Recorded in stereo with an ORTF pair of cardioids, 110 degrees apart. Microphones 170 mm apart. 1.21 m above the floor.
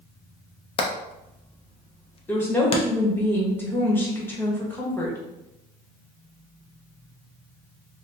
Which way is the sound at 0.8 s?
35° left.